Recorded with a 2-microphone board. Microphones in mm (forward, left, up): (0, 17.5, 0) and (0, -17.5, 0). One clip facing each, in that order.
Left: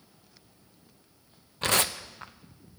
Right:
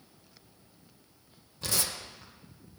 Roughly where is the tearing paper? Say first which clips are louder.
Left 8 dB; left.